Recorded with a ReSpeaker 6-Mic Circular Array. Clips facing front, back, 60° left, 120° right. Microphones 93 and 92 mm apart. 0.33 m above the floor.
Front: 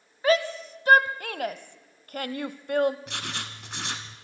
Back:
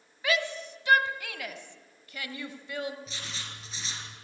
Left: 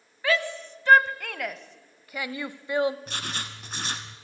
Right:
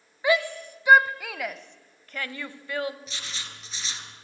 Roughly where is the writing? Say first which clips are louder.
Front 6 dB, left 5 dB; ahead left.